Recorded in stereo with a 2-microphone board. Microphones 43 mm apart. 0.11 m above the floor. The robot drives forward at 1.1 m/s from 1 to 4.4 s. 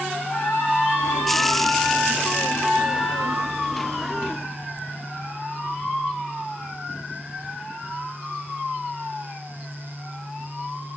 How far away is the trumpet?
About 6.5 m.